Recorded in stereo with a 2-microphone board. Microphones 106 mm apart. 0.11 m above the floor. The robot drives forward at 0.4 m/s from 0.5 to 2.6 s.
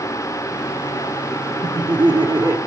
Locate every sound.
1.6 s laughter: 45° right (ahead or behind), 1.9 m; by 2.6 s 40° right (ahead or behind), 2 m